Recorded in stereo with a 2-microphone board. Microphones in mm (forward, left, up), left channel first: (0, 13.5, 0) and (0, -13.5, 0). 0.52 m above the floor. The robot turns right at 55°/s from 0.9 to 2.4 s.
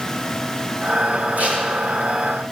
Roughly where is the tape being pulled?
Right.